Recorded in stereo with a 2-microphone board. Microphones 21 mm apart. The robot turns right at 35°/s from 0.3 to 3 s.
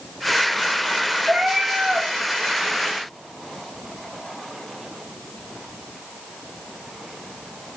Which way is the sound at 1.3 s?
55° right (ahead or behind).